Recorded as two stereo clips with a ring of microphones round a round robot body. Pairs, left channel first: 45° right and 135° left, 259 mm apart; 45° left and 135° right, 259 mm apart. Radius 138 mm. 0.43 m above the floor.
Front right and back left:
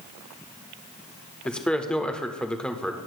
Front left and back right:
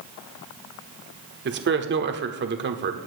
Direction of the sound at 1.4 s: 130° right.